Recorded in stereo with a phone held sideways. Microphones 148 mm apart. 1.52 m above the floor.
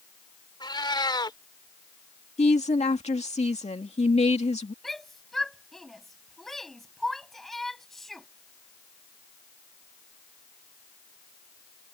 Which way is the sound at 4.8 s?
Centre (ahead or behind).